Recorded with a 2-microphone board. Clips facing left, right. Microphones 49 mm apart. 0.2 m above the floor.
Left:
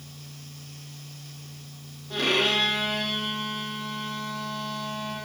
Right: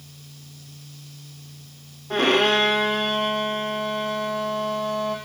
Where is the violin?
40° right (ahead or behind), 2.5 m.